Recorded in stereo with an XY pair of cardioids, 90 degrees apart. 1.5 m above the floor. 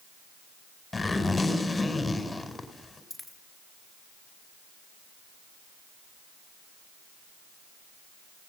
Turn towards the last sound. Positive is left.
turn(degrees=15)